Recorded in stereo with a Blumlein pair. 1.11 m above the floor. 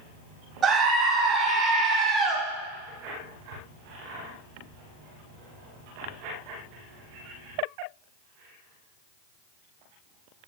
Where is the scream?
25° right, 2 m.